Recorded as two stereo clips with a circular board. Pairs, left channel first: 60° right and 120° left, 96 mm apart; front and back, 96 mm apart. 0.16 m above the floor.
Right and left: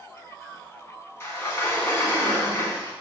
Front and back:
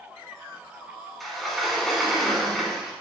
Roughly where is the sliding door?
Right.